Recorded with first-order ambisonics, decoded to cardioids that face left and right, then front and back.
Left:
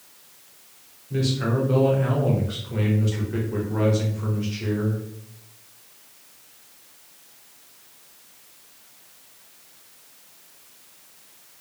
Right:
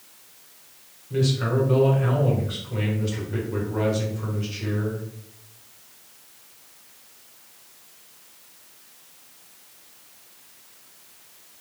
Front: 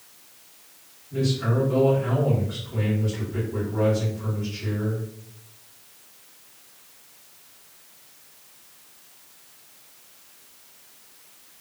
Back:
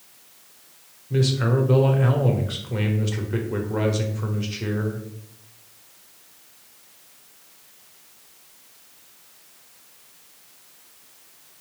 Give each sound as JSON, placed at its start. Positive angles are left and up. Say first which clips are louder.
{"t": 1.1, "sound": "a man speaking", "louder": "right 1 dB, back 3 dB", "azimuth_deg": 180, "distance_m": 0.8}